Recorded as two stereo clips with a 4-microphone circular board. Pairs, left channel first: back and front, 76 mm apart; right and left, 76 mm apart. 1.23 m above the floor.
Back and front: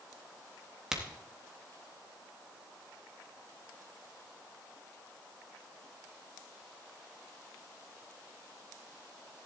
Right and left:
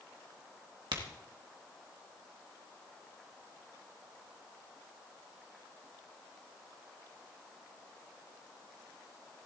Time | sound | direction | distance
0.9 | a crack | 80° left | 1.7 m